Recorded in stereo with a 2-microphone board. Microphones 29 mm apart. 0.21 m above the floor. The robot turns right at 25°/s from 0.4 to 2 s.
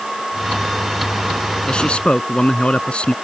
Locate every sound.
1.7 s a man speaking: 35° left (ahead or behind); by 3.1 s 40° left (ahead or behind)